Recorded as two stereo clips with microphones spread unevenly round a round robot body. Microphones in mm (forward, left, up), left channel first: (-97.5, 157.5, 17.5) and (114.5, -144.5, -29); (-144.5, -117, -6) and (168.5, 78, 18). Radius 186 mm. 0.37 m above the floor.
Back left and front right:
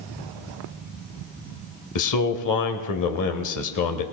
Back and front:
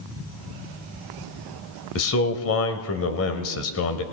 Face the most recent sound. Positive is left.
turn(degrees=165)